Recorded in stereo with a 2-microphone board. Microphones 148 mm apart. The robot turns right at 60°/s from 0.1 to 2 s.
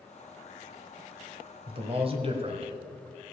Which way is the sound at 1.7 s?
35° right (ahead or behind).